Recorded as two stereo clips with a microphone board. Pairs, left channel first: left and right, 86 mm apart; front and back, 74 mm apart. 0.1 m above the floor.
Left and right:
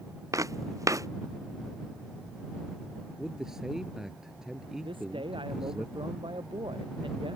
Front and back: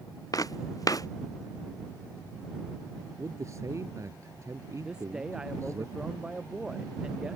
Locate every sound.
0.3 s footsteps: 40° right
3.2 s a man speaking: 170° right
4.8 s a man speaking: 100° right